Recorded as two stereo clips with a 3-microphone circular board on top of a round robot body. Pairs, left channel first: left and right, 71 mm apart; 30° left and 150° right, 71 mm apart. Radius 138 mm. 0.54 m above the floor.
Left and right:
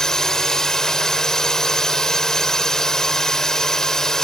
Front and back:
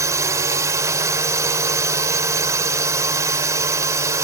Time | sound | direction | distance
0.0 | a drone | 175° left | ?